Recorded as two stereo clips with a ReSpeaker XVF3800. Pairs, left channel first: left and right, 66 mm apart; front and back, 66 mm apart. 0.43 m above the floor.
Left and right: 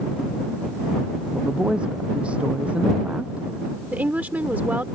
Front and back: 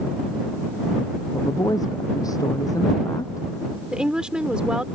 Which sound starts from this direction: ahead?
A woman speaking, at 1.3 s.